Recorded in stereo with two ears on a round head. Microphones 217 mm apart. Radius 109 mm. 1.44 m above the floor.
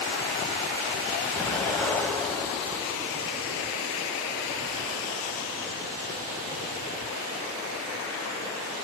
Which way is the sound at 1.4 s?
5° left (ahead or behind).